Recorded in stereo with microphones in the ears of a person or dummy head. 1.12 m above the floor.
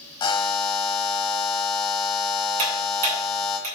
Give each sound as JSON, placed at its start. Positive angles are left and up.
{"t": 0.2, "sound": "a buzzer", "side_deg": 25, "distance_m": 1.2}
{"t": 2.6, "sound": "ticking", "side_deg": -45, "distance_m": 3.0}